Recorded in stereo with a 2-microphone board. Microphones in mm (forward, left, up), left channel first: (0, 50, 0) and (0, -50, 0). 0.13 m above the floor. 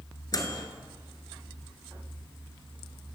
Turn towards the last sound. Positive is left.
turn(degrees=40)  # may be behind; listen again after turning